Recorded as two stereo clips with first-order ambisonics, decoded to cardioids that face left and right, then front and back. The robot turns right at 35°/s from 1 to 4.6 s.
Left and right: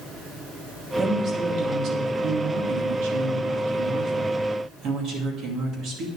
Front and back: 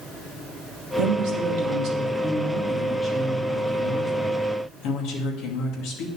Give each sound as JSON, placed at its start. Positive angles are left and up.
{"t": 1.0, "sound": "a woman speaking", "azimuth_deg": -160, "distance_m": 2.5}